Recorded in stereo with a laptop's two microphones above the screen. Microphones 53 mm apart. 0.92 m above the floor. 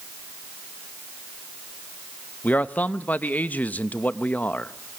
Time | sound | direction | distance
2.4 | a man speaking | 30° left (ahead or behind) | 0.6 m